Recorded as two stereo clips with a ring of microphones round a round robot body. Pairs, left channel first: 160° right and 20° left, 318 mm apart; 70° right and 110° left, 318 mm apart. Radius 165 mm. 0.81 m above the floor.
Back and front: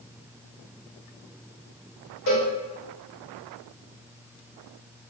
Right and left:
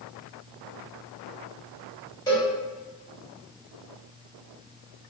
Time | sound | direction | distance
2.3 | a cowbell | 145° right | 1.4 m